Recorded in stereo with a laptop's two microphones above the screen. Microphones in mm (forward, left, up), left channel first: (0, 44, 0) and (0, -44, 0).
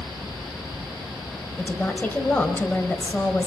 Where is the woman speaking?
20° left (ahead or behind), 5 m.